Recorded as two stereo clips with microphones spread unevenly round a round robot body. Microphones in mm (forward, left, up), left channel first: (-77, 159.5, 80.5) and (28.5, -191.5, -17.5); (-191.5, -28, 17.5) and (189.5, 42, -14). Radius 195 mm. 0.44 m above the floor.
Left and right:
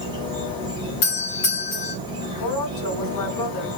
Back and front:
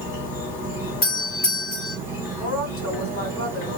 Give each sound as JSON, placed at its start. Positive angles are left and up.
{"t": 0.0, "sound": "an insect", "azimuth_deg": -55, "distance_m": 1.4}
{"t": 1.0, "sound": "a doorbell", "azimuth_deg": 135, "distance_m": 1.5}
{"t": 2.4, "sound": "a woman speaking", "azimuth_deg": 155, "distance_m": 1.8}